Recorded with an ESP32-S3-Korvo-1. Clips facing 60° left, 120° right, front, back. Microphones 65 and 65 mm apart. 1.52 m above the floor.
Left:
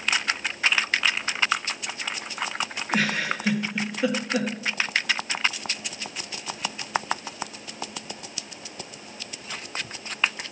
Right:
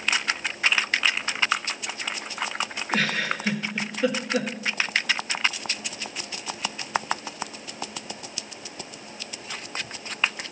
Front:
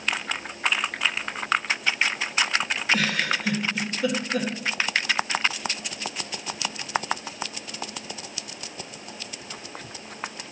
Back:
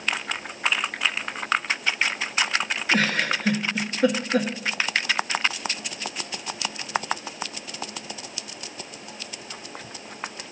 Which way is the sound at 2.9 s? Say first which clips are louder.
Even, back 2 dB; 140° left.